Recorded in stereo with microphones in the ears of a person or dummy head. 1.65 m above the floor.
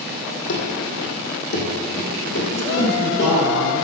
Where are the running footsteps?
60° left (ahead or behind), 3 m; by 3.3 s 50° left (ahead or behind), 6 m.